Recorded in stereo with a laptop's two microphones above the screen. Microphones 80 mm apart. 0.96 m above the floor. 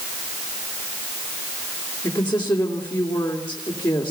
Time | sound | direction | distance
2.0 | a woman speaking | 70° left (ahead or behind) | 2.5 m